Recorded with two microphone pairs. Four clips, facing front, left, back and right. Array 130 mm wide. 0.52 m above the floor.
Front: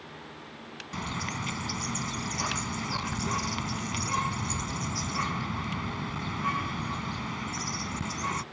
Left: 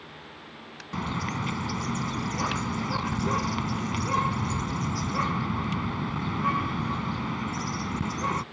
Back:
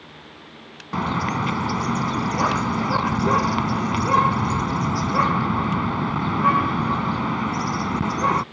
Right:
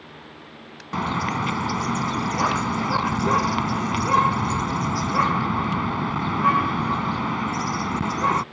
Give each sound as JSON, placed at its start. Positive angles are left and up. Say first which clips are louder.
{"t": 0.9, "sound": "a bird", "louder": "right 7 dB, back 12 dB", "azimuth_deg": -145}